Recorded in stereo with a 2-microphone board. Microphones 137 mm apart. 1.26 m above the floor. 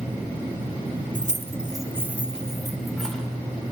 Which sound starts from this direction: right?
Keys jangling, at 1.1 s.